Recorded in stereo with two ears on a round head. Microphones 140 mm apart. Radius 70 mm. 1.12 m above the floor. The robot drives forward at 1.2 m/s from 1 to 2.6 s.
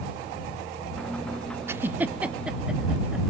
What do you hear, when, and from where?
1.7 s a giggle: 15° right (ahead or behind), 0.5 m; by 3.2 s 5° right (ahead or behind), 1.4 m